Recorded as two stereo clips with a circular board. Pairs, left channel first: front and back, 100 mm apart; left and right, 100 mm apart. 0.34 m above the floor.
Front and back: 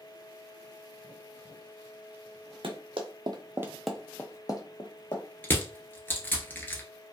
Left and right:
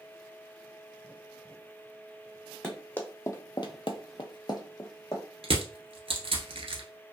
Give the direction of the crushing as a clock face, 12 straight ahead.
2 o'clock.